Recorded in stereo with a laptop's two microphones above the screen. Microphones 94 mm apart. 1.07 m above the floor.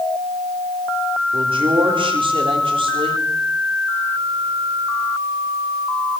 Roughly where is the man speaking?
Right.